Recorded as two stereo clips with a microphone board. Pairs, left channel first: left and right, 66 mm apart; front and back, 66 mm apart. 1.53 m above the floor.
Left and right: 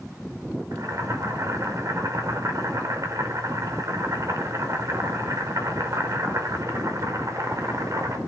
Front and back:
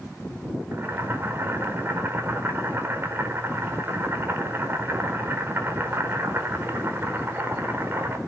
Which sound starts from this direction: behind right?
Boiling, at 0.7 s.